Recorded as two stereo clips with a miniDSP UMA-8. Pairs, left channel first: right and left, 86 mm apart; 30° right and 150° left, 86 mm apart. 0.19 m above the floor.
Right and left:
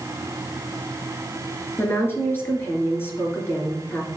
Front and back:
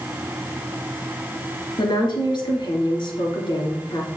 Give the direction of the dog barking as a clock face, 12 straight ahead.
I don't hear a dog barking.